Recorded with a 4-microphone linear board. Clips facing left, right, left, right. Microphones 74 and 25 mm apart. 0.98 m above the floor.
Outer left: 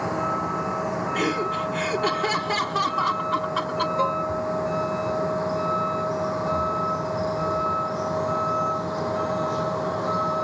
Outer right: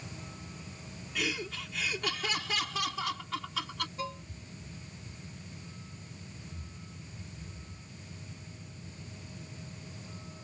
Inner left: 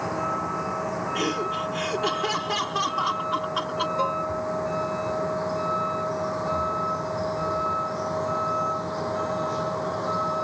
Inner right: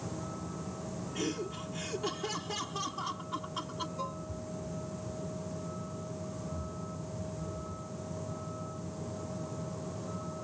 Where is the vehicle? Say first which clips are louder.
Outer left 22 dB, inner left 14 dB; 70° left (ahead or behind).